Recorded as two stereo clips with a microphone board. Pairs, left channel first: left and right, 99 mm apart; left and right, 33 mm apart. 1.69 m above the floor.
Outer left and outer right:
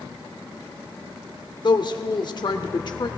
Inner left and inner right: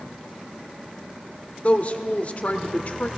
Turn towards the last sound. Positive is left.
turn(degrees=50)  # may be behind; listen again after turning